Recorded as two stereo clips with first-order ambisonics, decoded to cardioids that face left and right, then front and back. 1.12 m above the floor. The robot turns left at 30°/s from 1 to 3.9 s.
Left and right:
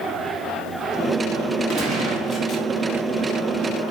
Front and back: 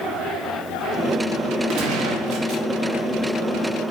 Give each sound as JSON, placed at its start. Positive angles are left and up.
{"t": 1.7, "sound": "a gunshot", "azimuth_deg": -145, "distance_m": 2.5}